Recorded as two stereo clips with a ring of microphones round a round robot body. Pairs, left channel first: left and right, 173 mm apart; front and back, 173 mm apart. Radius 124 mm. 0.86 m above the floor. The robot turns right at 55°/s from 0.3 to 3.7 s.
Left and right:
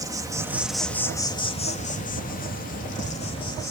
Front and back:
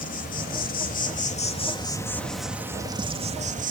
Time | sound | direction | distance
0.0 | an insect | 25° right | 2 m